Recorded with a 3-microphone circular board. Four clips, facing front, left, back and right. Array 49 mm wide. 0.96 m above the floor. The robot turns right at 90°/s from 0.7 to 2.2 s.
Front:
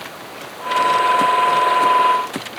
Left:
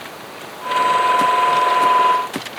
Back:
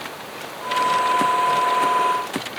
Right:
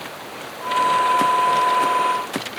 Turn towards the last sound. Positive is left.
No sound to turn to.